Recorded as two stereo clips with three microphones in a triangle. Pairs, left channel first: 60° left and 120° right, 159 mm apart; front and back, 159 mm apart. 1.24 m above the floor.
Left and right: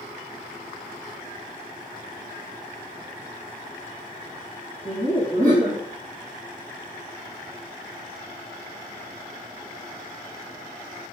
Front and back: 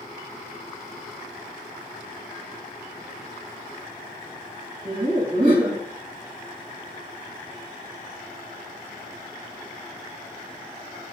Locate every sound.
4.8 s laughter: 155° right, 1.8 m